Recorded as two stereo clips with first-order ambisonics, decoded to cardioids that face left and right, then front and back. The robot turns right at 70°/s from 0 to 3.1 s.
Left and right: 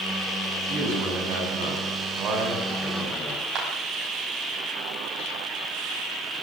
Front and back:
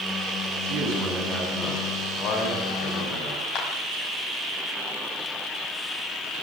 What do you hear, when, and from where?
0.6 s a man speaking: 155° right, 8 m; by 3.5 s 20° left, 8 m
3.5 s a clap: 45° right, 5.5 m